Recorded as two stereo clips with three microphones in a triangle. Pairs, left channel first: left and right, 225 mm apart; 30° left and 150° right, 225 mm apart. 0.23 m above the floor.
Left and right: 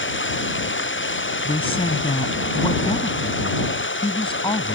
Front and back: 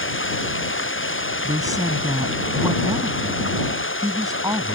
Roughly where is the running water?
Ahead left.